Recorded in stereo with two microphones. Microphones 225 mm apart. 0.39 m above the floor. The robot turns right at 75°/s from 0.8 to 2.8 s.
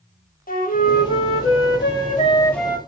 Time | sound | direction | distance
0.5 | a flute | 45° left | 0.5 m